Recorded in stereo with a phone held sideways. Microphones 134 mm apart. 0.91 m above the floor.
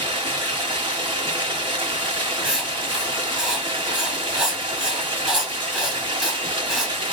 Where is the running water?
45° right (ahead or behind), 1.5 m.